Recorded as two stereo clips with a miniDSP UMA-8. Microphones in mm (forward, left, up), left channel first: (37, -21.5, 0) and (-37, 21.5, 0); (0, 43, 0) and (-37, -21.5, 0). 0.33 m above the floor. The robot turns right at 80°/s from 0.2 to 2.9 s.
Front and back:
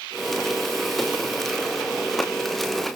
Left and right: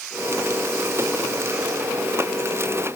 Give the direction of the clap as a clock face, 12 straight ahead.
No clap in this recording.